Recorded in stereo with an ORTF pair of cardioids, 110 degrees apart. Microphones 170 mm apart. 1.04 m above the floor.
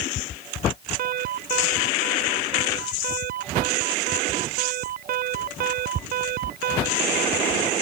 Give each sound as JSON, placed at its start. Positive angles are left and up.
{"t": 1.0, "sound": "an alarm", "azimuth_deg": -60}